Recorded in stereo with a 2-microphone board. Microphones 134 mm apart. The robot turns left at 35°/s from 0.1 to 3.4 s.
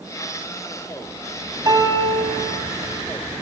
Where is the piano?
30° right (ahead or behind), 2 m; by 2.4 s 45° right (ahead or behind), 2 m.